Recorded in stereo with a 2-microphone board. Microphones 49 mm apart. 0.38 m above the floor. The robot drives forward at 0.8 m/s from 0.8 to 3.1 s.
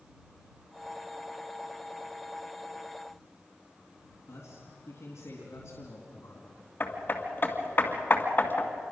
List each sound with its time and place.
4.3 s a man speaking: 70° left (ahead or behind), 3.5 m
6.8 s hammering: 45° left (ahead or behind), 2.0 m